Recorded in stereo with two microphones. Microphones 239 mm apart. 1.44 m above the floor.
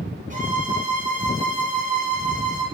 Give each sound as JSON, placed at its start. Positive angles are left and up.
{"t": 0.3, "sound": "a violin", "side_deg": -35, "distance_m": 1.0}